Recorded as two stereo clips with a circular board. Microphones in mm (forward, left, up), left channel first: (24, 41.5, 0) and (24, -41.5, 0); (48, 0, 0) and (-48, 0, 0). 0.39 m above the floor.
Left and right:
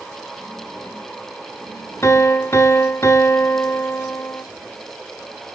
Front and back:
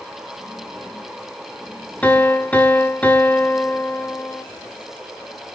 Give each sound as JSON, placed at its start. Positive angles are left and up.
{"t": 2.0, "sound": "a piano", "azimuth_deg": 65, "distance_m": 1.5}